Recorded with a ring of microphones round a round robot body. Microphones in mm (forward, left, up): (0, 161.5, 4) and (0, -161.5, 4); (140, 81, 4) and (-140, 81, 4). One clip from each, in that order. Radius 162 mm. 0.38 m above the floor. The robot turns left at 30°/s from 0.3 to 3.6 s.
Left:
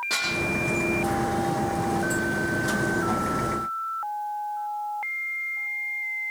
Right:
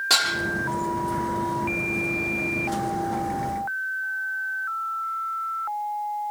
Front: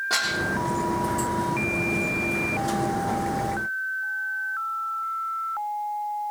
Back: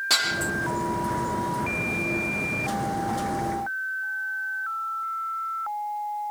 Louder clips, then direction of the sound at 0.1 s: Right 7 dB, back 2 dB; 145° right.